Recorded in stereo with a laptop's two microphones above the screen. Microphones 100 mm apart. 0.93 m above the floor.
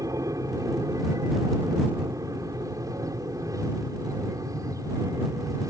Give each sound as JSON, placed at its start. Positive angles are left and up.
{"t": 0.0, "sound": "an aircraft", "side_deg": -35}